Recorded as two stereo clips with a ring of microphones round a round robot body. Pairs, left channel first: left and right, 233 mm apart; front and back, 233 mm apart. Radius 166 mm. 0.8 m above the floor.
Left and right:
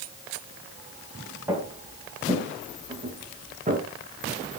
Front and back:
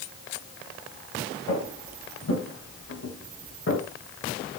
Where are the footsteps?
10° right, 8.5 m; by 3.8 s 35° right, 6.5 m.